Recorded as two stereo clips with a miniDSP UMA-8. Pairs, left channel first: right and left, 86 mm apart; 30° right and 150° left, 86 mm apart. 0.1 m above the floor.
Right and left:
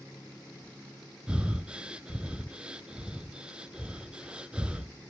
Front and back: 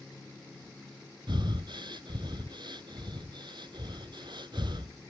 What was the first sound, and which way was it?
Breathing, 165° left.